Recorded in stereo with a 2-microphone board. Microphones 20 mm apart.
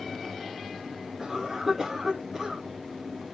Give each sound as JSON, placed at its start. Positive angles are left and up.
{"t": 1.2, "sound": "a cough", "side_deg": -30, "distance_m": 1.4}